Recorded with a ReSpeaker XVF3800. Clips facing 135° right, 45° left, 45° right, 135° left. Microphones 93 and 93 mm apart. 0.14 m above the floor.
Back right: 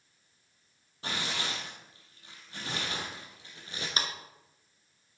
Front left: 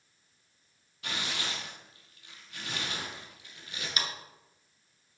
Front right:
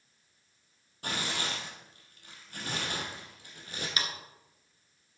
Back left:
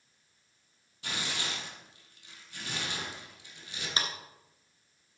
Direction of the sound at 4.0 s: 175° right.